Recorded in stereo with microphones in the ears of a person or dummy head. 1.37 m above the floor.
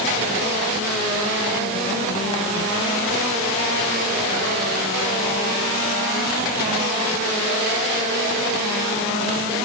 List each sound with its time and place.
Only background noise.